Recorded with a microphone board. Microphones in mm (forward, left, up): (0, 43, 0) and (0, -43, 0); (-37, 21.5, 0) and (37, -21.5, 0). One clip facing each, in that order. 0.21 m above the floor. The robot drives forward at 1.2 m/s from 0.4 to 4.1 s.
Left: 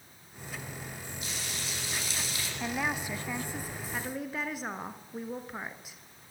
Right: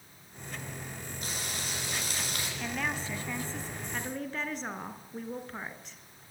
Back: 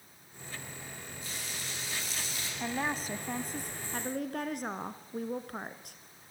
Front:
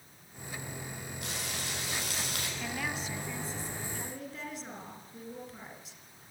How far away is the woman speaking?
About 1.1 m.